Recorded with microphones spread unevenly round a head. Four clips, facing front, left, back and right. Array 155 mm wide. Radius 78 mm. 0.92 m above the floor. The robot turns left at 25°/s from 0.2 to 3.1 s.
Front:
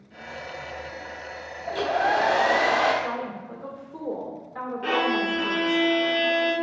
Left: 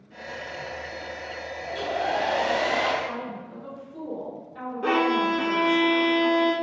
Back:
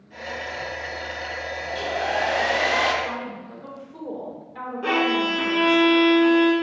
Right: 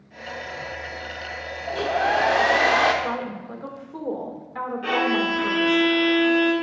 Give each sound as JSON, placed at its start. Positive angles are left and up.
{"t": 1.7, "sound": "a hair dryer", "azimuth_deg": -45, "distance_m": 1.1}
{"t": 3.0, "sound": "a woman speaking", "azimuth_deg": -70, "distance_m": 2.0}
{"t": 4.8, "sound": "a violin", "azimuth_deg": 120, "distance_m": 1.5}